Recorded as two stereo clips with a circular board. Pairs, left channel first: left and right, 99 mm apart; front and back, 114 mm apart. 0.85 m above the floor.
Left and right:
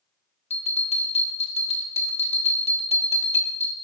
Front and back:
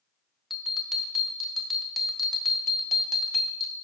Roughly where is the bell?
Left.